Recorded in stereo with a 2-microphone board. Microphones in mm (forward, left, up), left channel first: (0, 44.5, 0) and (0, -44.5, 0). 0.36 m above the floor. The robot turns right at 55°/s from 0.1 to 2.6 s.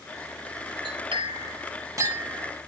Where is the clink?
65° right (ahead or behind), 2.0 m; by 2.5 s 15° right (ahead or behind), 2.0 m.